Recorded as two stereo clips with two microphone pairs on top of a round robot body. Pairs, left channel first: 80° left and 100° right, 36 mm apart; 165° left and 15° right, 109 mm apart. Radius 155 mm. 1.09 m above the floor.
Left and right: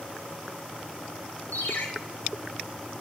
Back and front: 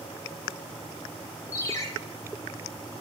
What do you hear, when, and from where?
1.5 s a ringtone: 105° left, 1.5 m